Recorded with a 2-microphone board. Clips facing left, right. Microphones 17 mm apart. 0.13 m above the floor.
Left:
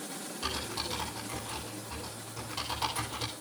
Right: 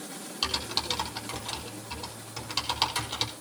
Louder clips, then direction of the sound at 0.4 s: Right 6 dB; 70° right (ahead or behind).